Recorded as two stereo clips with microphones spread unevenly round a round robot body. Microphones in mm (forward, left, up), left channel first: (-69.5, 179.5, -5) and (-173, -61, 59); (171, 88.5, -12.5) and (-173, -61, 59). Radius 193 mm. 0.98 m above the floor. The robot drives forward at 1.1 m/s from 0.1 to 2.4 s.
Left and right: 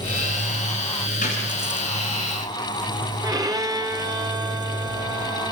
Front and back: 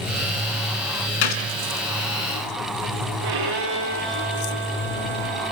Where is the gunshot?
10° right, 3 m.